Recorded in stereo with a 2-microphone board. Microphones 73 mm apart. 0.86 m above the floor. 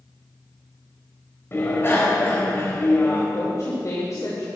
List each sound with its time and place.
1.5 s a bicycle bell: 35° left (ahead or behind), 3 m
3.3 s a woman speaking: 50° left (ahead or behind), 2.5 m